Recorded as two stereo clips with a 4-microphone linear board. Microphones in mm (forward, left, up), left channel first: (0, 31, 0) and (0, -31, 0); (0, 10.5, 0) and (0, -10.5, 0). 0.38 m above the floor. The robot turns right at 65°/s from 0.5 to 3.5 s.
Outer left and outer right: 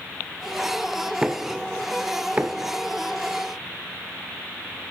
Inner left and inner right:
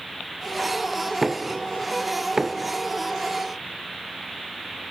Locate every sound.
1.2 s knocking: 15° right (ahead or behind), 0.6 m; by 2.7 s 25° right (ahead or behind), 0.6 m